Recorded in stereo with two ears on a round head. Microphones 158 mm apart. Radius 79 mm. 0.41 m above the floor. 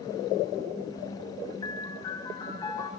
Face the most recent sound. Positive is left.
turn(degrees=25)  # may be behind; listen again after turning